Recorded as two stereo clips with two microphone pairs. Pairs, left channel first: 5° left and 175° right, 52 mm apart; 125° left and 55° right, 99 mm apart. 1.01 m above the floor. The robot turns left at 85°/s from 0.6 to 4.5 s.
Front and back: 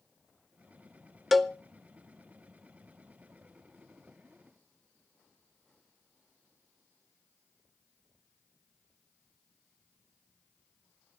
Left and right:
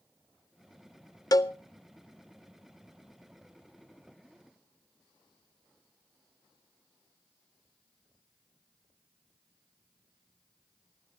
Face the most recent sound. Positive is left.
turn(degrees=-170)